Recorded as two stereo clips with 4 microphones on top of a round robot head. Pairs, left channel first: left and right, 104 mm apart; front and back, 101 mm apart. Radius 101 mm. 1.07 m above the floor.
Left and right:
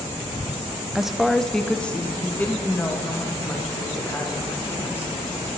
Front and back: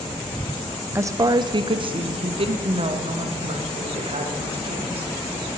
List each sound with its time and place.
0.9 s a woman speaking: 170° right, 0.7 m; by 5.1 s 160° left, 3 m